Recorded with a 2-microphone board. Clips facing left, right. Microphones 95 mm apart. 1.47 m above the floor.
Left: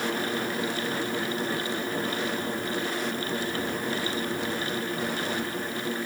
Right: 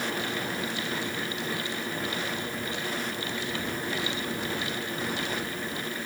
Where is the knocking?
No knocking in this recording.